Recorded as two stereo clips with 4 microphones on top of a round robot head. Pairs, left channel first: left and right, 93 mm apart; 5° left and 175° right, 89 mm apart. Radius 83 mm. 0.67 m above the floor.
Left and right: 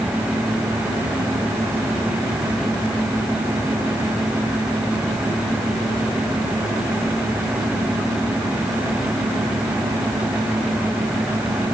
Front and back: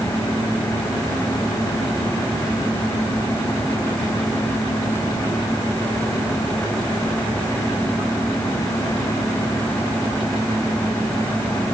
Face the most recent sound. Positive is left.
No sound to turn to.